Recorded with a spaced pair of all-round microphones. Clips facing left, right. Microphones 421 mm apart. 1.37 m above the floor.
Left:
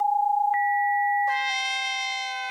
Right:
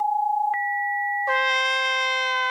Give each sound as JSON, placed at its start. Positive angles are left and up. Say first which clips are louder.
{"t": 1.3, "sound": "a trumpet", "louder": "right 7 dB", "side_deg": -75}